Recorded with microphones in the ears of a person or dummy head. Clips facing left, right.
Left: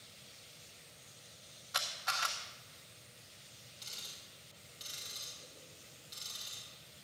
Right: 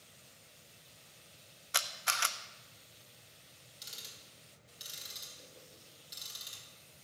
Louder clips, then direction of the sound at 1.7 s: Right 2 dB; 40° right (ahead or behind).